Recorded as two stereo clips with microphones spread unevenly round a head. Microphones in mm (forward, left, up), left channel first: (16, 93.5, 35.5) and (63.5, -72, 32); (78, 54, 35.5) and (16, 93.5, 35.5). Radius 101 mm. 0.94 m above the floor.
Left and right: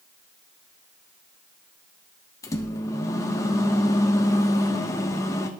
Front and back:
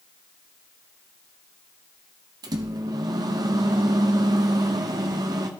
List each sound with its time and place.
2.4 s a microwave: straight behind, 0.6 m